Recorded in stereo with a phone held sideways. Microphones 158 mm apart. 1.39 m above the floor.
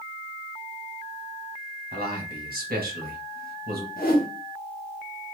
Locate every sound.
1.9 s a man speaking: 70° right (ahead or behind), 1.4 m
4.0 s a whoosh: 70° left (ahead or behind), 0.9 m